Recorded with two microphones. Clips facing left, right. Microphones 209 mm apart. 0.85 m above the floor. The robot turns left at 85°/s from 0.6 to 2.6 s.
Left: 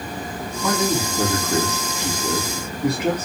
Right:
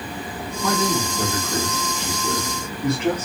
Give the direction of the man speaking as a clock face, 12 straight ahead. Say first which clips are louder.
Left 1 dB; 6 o'clock.